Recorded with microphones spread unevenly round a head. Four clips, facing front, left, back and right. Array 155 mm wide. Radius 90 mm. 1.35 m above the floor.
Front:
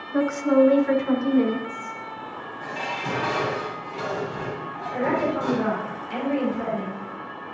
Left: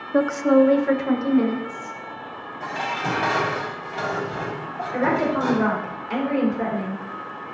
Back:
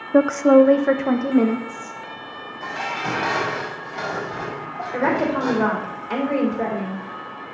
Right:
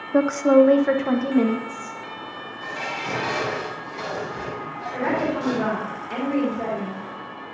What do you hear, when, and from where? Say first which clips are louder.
0.1 s a woman speaking: right 1 dB, back 6 dB; 175° right, 0.6 m; by 2.0 s 165° right, 1.9 m
2.6 s dishes clattering: left 4 dB, back 3 dB; 125° left, 5.5 m
4.9 s a woman speaking: left 2 dB, back 3 dB; 160° left, 3.5 m